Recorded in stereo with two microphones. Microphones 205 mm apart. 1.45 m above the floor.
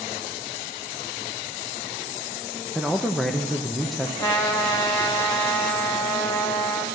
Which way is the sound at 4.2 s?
20° left (ahead or behind).